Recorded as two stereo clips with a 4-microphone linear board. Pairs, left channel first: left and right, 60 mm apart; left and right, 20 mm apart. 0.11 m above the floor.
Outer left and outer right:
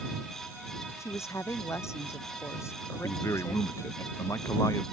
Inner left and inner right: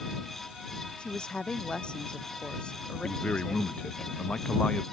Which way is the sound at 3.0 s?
60° left (ahead or behind).